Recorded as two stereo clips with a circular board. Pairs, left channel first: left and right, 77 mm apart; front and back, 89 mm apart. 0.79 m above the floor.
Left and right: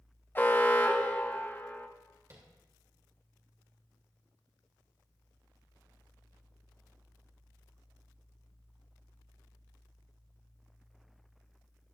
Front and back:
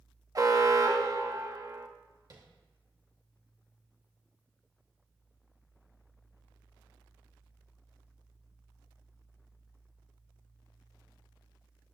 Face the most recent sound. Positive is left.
turn(degrees=-140)